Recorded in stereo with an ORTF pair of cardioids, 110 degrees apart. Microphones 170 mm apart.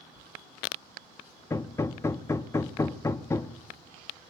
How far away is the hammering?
About 0.8 m.